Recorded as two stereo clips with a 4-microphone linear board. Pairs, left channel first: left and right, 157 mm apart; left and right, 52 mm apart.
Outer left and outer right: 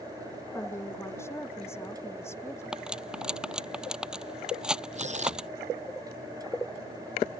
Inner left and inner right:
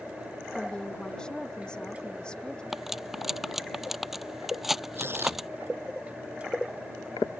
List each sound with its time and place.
0.6 s a woman speaking: 15° left (ahead or behind)
2.7 s cutlery clinking: 5° right (ahead or behind)
5.0 s tearing paper: 45° right (ahead or behind)